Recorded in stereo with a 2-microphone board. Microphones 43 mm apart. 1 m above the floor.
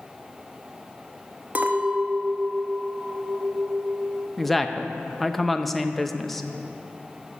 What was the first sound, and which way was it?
A clink, 40° right (ahead or behind).